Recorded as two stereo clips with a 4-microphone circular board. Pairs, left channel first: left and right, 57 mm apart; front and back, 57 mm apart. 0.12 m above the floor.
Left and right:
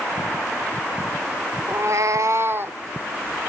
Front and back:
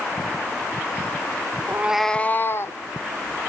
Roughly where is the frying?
I don't hear frying.